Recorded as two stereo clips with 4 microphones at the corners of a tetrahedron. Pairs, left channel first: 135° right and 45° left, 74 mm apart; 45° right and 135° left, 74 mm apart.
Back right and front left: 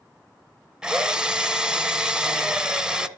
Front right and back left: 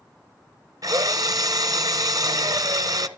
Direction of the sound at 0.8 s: 125° left.